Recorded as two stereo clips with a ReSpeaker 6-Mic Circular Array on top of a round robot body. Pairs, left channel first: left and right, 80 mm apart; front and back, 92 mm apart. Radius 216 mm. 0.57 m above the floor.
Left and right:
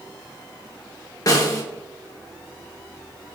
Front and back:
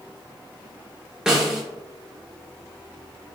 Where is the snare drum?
100° left, 1.5 m.